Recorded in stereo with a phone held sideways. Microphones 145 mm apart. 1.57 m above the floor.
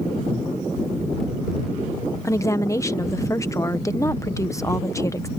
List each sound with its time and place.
2.2 s a woman speaking: 20° left (ahead or behind)